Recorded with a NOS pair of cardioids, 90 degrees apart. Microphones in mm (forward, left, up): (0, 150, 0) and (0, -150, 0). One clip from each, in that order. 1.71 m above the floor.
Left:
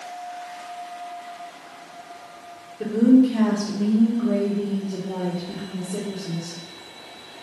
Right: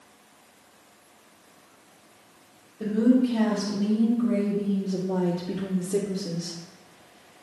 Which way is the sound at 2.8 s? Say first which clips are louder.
Left 5 dB; 40° left.